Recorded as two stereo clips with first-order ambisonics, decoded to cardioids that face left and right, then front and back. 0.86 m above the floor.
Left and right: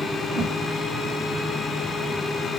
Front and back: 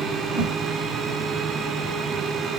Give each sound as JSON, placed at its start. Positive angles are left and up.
{"t": 0.3, "sound": "a whoosh", "azimuth_deg": -175, "distance_m": 2.5}